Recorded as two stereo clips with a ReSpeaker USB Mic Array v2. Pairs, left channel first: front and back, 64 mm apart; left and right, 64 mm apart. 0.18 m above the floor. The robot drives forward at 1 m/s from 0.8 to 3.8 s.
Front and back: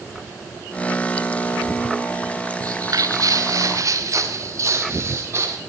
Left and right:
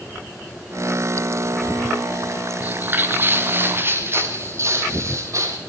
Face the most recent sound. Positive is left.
turn(degrees=-130)